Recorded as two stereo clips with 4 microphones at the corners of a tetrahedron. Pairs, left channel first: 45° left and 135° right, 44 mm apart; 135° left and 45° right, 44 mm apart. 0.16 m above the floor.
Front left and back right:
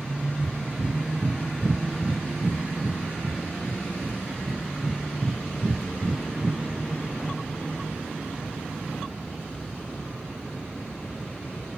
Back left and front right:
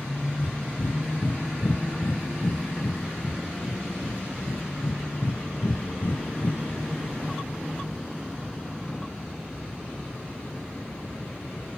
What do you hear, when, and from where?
0.4 s breathing: 160° left, 1.0 m